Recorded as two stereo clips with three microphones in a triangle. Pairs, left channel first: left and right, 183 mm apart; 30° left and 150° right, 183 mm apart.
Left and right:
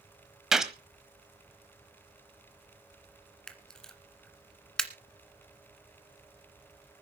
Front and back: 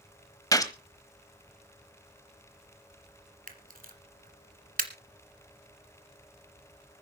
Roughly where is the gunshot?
Ahead.